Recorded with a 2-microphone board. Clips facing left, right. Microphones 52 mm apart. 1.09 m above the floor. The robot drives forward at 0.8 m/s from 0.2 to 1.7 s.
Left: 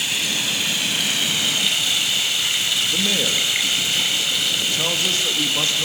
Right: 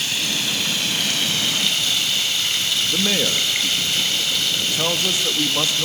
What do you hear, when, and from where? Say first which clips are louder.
0.0 s running water: even; 5° left (ahead or behind), 6.5 m
2.9 s a man speaking: right 3 dB; 15° right (ahead or behind), 2 m